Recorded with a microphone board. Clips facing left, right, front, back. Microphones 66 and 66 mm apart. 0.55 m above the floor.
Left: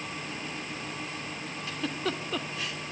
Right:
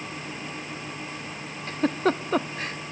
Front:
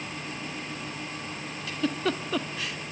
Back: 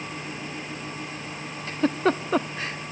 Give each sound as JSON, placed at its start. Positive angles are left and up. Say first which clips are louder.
{"t": 1.7, "sound": "a giggle", "louder": "right 9 dB, back 6 dB", "azimuth_deg": -135, "distance_m": 0.8}